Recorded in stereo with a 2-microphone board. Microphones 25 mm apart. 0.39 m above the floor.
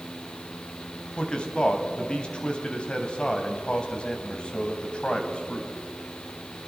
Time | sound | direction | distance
1.2 | a man speaking | 45° left (ahead or behind) | 3 m